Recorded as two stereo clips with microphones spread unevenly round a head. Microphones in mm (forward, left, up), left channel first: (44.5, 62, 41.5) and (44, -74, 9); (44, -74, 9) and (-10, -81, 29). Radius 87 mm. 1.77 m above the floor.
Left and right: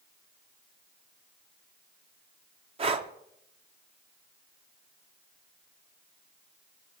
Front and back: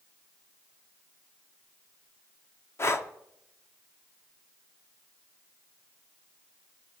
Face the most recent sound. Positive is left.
turn(degrees=-40)